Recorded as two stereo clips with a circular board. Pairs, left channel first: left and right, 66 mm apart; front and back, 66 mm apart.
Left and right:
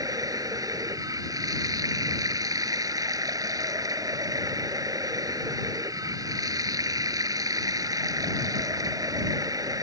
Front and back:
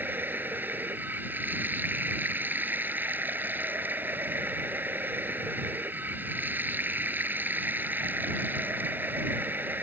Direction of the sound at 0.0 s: 120° right.